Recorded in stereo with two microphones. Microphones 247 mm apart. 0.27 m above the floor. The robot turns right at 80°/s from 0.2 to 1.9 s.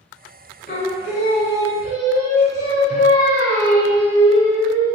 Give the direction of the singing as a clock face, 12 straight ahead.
11 o'clock.